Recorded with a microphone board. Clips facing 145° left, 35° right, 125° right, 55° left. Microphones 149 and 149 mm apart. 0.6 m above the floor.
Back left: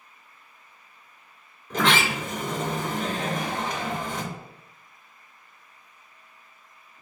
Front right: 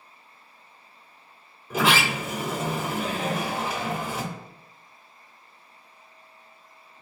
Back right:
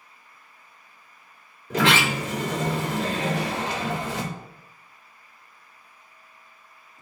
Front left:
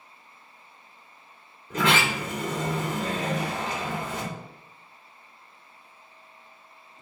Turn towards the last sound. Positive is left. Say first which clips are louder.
# even, back right 3 dB
turn(degrees=-115)